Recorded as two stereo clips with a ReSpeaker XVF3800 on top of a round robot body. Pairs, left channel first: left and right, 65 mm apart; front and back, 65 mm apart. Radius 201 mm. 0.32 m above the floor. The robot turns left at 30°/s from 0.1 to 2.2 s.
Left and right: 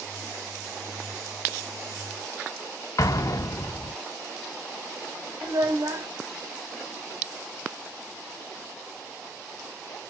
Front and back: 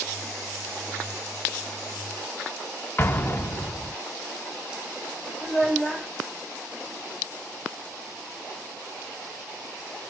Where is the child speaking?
95° right, 1.8 m.